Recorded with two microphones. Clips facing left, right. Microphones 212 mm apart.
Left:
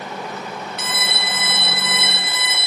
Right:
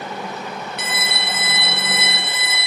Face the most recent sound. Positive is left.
turn(degrees=-60)  # may be behind; listen again after turning